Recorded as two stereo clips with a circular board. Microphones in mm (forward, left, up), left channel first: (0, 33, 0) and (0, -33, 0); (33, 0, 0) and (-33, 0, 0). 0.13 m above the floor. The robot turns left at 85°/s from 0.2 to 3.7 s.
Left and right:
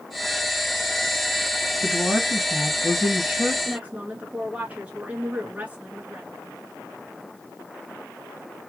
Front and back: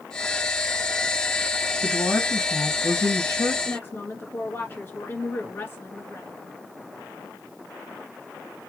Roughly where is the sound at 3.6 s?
Ahead right.